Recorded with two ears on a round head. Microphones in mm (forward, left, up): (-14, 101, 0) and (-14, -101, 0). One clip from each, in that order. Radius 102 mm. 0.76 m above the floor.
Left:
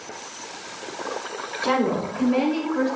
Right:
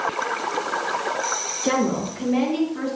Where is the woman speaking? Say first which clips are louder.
Left 2 dB; 60° left (ahead or behind), 8 m.